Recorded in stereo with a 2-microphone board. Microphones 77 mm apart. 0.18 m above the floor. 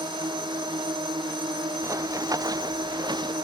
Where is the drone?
70° right (ahead or behind).